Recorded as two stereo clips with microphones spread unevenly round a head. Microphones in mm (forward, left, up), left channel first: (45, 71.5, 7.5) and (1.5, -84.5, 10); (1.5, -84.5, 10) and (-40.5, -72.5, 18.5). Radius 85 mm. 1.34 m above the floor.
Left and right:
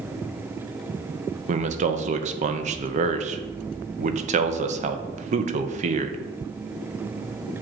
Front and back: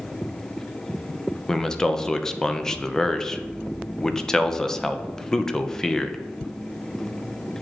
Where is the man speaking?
80° right, 0.7 m.